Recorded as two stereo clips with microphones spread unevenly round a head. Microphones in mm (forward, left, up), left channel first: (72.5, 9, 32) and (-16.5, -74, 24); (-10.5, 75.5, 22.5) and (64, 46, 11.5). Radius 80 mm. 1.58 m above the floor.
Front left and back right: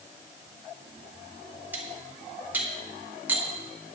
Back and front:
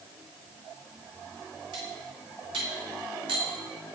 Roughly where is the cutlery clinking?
Ahead right.